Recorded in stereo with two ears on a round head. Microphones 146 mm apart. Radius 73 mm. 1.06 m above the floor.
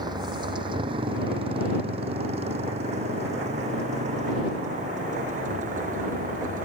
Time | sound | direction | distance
0.0 | a motorcycle | 25° right (ahead or behind) | ?